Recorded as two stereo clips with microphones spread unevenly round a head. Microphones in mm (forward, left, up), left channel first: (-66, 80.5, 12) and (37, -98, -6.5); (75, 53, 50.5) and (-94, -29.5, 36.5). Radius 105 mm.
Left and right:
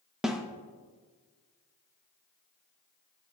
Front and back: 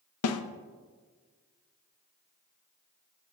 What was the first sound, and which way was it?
A snare drum, 30° left.